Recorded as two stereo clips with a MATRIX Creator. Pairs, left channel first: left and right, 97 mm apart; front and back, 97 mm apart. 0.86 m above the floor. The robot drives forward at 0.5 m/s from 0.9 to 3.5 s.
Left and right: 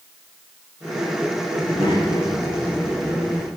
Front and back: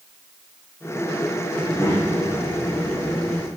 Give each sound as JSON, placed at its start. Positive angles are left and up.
{"t": 1.6, "sound": "a child speaking", "azimuth_deg": 55, "distance_m": 4.0}